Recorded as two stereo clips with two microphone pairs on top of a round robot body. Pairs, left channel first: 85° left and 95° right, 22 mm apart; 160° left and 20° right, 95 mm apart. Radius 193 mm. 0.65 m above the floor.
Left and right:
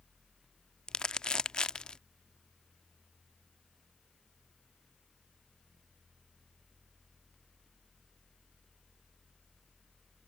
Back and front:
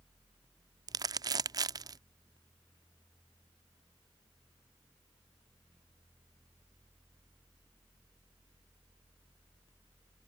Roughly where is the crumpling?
Ahead left.